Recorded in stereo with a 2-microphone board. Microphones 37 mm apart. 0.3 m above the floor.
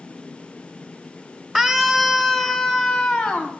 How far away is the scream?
About 1.0 m.